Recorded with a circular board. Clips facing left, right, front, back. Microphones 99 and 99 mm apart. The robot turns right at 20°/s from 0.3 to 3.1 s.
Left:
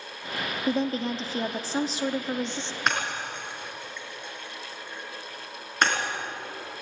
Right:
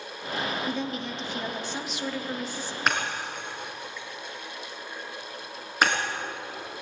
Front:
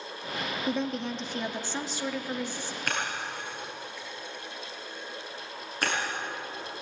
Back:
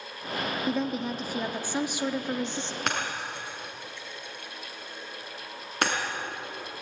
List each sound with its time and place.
0.7 s a woman speaking: 95° left, 1.1 m; by 2.8 s 135° left, 1.1 m
2.9 s breaking glass: straight behind, 5.5 m; by 6.0 s 175° right, 5.5 m